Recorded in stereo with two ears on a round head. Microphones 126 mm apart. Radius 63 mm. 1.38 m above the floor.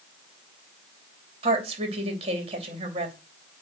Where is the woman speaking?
45° right (ahead or behind), 3 m.